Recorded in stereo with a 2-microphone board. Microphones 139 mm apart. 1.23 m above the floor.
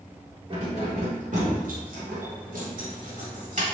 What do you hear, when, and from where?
0.5 s keys jangling: 40° right (ahead or behind), 1.4 m; by 3.6 s 55° right (ahead or behind), 1.5 m